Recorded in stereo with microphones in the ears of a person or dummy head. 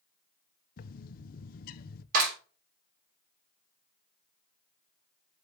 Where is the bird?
50° left (ahead or behind), 0.5 m.